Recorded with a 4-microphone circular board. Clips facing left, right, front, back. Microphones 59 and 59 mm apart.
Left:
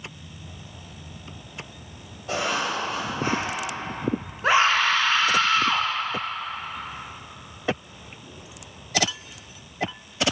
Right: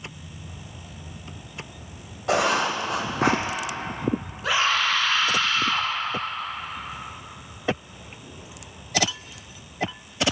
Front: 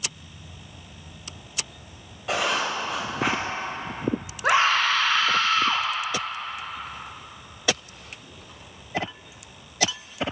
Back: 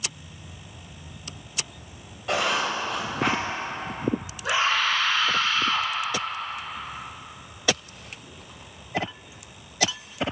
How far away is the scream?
About 0.9 m.